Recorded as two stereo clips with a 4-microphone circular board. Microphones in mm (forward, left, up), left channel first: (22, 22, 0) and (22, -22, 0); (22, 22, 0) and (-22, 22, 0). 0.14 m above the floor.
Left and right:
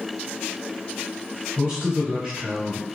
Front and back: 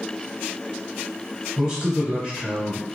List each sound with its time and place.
1.6 s a man speaking: 120° right, 1.9 m